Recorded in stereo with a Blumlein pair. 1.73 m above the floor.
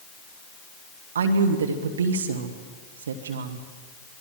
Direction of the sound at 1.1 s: 65° right.